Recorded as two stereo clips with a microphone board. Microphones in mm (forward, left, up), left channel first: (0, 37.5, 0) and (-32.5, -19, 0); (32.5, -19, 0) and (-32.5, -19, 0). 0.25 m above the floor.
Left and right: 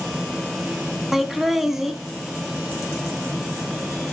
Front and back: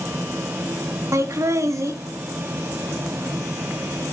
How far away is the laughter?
About 1.8 m.